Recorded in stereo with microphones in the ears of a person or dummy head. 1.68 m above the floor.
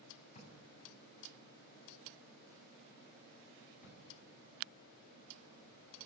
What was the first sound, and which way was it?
A drawer, 40° left (ahead or behind).